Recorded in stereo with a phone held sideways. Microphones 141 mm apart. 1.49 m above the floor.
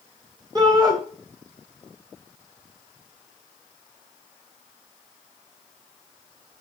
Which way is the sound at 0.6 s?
30° right (ahead or behind).